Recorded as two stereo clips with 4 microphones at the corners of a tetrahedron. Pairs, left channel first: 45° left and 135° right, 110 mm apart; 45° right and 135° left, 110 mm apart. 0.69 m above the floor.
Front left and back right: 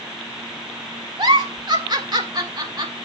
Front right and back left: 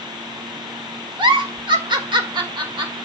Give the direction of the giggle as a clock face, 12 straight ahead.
6 o'clock.